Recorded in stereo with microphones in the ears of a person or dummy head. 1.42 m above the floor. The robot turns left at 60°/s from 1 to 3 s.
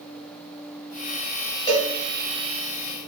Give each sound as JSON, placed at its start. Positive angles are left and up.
{"t": 1.7, "sound": "a cowbell", "side_deg": 15, "distance_m": 0.8}